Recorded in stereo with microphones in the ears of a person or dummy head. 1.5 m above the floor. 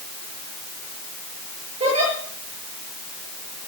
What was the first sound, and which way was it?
A giggle, 30° right (ahead or behind).